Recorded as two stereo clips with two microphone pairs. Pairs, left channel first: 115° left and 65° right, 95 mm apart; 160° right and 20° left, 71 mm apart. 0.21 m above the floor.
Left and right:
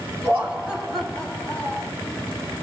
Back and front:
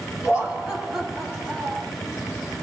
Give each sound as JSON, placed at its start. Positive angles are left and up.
{"t": 0.2, "sound": "laughter", "azimuth_deg": -40, "distance_m": 1.0}